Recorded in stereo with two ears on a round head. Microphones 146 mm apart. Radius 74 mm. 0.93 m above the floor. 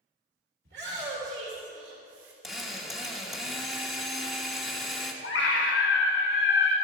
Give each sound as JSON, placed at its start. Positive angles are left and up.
{"t": 0.7, "sound": "a shout", "side_deg": -60, "distance_m": 2.5}
{"t": 2.4, "sound": "a drill", "side_deg": 0, "distance_m": 1.2}
{"t": 5.2, "sound": "a scream", "side_deg": 75, "distance_m": 1.3}